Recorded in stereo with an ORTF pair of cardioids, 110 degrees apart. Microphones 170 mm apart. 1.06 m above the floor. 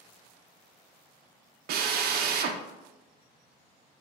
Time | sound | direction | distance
1.7 | a drill | 65° right | 0.5 m